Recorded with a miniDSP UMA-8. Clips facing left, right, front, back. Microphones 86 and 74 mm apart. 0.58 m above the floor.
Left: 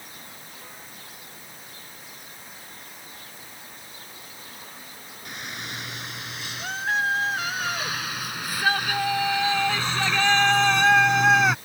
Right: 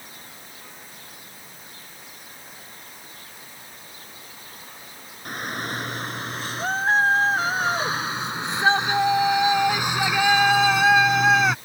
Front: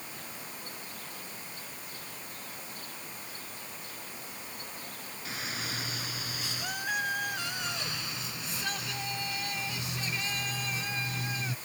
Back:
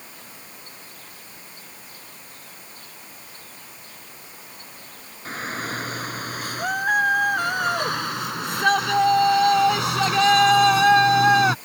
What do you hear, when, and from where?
5.2 s a shout: 135° right; by 11.6 s straight behind